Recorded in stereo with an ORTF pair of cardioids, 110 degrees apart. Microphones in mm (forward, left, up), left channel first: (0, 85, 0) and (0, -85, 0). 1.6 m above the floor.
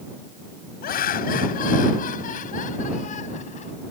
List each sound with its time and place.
0.8 s laughter: 60° left; by 3.7 s 45° left